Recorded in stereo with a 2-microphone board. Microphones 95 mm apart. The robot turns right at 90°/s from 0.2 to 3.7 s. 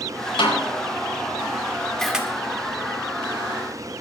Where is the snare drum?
70° left (ahead or behind), 5 m; by 0.7 s 50° left (ahead or behind), 5 m.